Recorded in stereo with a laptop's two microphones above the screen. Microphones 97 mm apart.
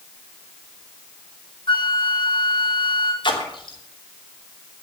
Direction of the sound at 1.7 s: 60° left (ahead or behind).